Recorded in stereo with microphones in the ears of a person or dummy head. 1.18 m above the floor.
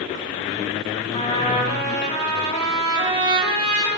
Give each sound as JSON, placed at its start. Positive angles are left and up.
{"t": 1.1, "sound": "a trumpet", "side_deg": 30, "distance_m": 5.0}